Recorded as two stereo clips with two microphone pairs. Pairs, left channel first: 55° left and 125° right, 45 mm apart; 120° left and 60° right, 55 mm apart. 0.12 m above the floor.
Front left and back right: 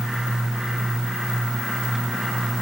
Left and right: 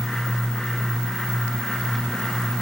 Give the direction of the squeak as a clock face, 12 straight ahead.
I don't hear a squeak.